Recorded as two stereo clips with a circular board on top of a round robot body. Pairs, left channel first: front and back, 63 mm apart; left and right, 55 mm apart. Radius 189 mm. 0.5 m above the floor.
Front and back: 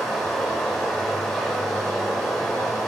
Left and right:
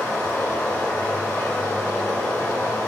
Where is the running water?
85° left, 1.3 m.